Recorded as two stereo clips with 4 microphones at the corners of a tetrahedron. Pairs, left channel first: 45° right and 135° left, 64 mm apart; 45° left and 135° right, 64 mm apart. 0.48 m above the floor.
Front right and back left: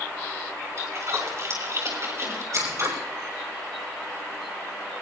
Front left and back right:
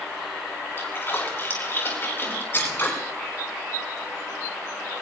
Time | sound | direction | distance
0.8 | a splash | 95° left | 4.5 m
2.5 | scissors | 100° left | 6 m